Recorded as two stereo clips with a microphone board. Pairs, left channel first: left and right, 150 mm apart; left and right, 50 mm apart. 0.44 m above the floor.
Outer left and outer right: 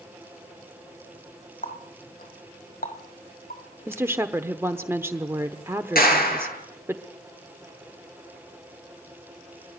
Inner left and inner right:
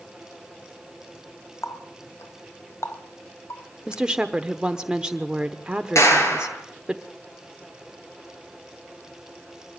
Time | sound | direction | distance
1.6 | a running tap | 70° left (ahead or behind) | 1.7 m
3.9 | a woman speaking | 15° right (ahead or behind) | 1.0 m
6.0 | a clap | 80° left | 7 m